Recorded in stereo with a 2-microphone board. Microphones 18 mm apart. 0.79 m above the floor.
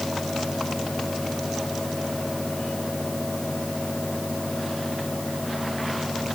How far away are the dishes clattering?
No dishes clattering in this recording.